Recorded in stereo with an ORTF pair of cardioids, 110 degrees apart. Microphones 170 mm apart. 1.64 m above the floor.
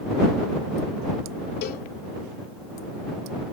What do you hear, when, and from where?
1.6 s a cowbell: 70° left